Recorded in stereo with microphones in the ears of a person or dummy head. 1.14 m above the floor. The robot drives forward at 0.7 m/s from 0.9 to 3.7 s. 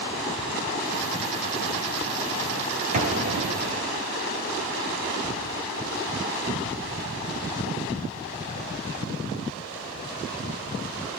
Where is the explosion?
45° right (ahead or behind), 3 m; by 4.0 s 40° right (ahead or behind), 3.5 m.